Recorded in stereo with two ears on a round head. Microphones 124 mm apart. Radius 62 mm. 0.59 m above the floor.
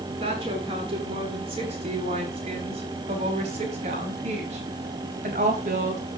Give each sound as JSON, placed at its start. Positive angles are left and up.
{"t": 0.2, "sound": "a woman speaking", "side_deg": -40, "distance_m": 6.0}